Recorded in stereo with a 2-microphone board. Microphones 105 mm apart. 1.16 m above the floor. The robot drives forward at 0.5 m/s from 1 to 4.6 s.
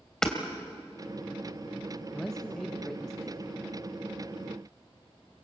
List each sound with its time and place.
0.2 s hammering: 5° left (ahead or behind), 2.5 m
2.1 s a man speaking: 5° left (ahead or behind), 1.3 m